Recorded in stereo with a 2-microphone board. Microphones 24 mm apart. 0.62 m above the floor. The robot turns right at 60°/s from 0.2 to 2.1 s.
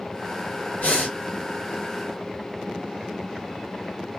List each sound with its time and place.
0.8 s breathing: 75° left (ahead or behind), 1.7 m; by 1.1 s 65° left (ahead or behind), 1.7 m